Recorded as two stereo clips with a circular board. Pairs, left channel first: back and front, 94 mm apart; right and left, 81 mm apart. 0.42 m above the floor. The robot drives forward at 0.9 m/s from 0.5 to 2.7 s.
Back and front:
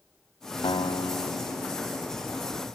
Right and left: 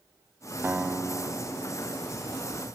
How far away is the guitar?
About 0.5 m.